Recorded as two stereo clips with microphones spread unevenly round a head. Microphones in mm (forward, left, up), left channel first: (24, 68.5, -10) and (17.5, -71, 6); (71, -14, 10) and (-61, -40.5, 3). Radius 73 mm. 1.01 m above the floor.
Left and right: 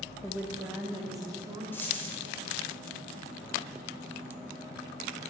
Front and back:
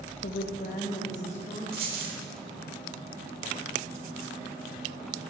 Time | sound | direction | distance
0.2 | a woman speaking | 5° left | 0.8 m
1.7 | a dropped coin | 170° left | 1.3 m